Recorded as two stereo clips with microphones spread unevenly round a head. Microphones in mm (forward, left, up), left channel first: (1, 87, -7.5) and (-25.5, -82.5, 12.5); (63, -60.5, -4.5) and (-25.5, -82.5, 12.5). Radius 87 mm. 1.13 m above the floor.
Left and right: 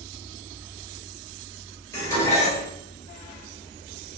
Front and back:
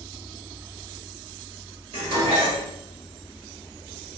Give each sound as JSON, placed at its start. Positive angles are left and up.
{"t": 1.9, "sound": "dishes clattering", "azimuth_deg": 155, "distance_m": 1.3}